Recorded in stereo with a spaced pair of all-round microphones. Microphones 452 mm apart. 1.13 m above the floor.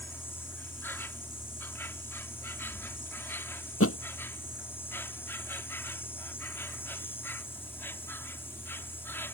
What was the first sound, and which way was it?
An insect, 5° left (ahead or behind).